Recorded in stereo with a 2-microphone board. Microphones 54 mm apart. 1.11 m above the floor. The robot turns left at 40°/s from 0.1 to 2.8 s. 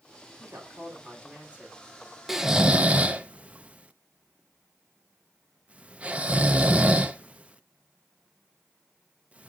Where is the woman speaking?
110° right, 2.5 m; by 1.8 s 165° right, 2.5 m.